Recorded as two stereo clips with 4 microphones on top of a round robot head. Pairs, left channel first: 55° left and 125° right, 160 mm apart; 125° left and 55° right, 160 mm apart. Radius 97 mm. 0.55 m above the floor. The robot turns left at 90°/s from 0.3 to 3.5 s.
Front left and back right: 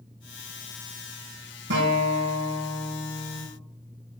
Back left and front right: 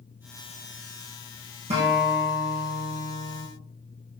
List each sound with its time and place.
1.7 s a guitar: 105° right, 5.5 m; by 3.5 s 95° left, 5.5 m